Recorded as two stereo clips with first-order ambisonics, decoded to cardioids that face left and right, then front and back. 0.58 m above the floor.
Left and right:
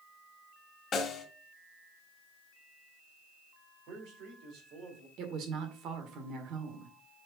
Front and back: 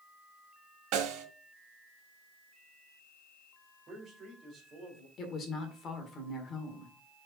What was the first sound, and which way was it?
A snare drum, 155° left.